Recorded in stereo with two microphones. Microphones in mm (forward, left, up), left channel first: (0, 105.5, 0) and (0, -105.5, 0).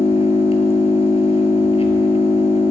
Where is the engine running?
30° left (ahead or behind), 0.8 m.